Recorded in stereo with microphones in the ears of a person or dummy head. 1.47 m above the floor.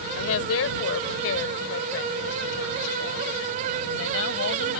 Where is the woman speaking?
80° left; by 4.8 s 75° left (ahead or behind).